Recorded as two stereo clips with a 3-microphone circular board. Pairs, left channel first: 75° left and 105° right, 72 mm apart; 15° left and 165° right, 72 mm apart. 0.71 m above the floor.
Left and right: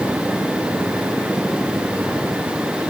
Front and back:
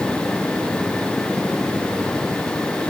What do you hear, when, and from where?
Only background noise.